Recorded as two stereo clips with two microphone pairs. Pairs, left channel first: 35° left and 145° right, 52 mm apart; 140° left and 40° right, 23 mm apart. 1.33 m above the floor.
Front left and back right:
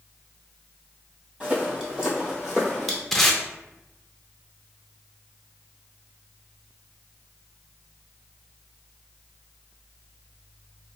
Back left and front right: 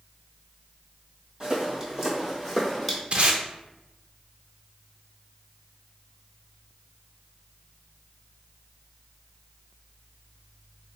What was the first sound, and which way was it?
Footsteps, 95° right.